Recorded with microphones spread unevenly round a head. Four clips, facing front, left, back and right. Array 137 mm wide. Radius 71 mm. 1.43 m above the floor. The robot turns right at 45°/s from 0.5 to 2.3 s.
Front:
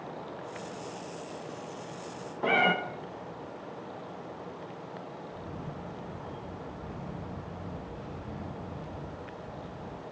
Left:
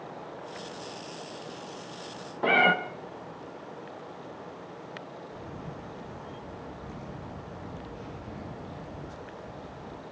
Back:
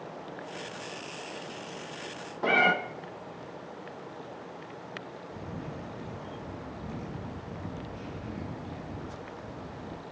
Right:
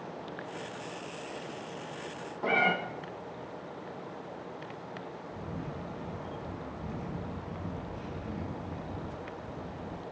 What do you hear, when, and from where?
2.4 s a cat meowing: 90° left, 0.7 m
5.3 s a camera shutter: 170° right, 1.4 m